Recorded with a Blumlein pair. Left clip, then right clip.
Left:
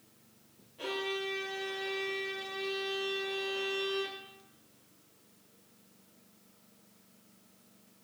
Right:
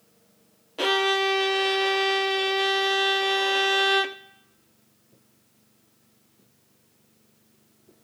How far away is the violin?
About 0.8 m.